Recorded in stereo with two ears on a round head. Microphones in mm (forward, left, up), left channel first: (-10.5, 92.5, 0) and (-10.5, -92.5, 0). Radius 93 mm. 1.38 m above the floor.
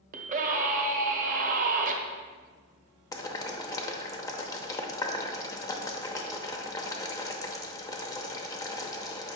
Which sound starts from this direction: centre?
Boiling, at 3.1 s.